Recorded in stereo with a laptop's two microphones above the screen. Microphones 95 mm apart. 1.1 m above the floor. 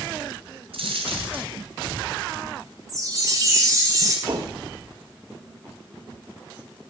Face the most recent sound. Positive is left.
turn(degrees=-45)  # may be behind; listen again after turning